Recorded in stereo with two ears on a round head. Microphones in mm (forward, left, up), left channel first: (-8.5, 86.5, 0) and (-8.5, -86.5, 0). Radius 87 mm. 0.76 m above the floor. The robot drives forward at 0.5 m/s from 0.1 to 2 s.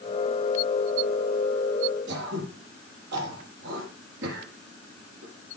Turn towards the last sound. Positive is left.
turn(degrees=-65)  # may be behind; listen again after turning